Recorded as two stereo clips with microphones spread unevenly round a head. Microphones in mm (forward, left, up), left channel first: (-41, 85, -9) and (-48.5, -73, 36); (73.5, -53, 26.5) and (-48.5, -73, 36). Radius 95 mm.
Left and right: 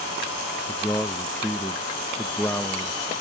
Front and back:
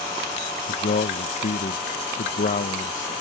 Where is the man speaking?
10° left.